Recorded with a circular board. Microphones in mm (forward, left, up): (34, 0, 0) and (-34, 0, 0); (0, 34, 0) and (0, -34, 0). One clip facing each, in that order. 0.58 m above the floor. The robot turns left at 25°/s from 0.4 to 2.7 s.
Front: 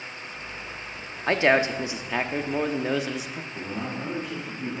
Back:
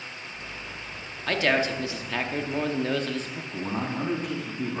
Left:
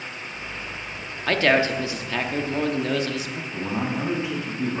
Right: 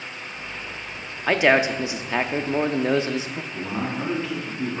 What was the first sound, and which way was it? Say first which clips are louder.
A man speaking: front 3 dB, right 1 dB; 30° right.